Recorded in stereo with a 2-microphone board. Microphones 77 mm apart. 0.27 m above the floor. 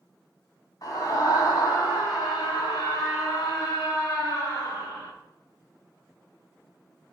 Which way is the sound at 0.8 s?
50° left (ahead or behind).